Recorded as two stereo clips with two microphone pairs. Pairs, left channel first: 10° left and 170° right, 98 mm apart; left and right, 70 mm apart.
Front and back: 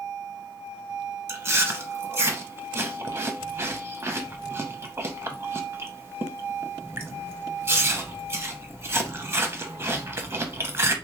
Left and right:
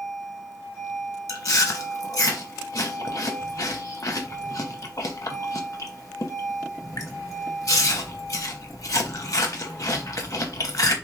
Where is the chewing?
130° left, 0.6 m.